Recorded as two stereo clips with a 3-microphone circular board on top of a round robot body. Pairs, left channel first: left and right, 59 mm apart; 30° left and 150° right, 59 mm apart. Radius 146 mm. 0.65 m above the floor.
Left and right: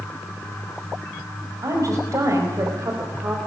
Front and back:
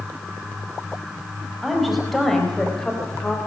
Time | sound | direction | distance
1.6 | a woman speaking | 60° right | 5 m